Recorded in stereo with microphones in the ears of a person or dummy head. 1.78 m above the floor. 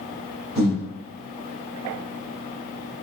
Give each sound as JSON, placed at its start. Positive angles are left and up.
{"t": 0.6, "sound": "breathing", "side_deg": -15, "distance_m": 1.3}